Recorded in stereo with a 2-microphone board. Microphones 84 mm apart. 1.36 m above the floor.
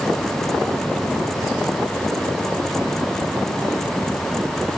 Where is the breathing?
I don't hear breathing.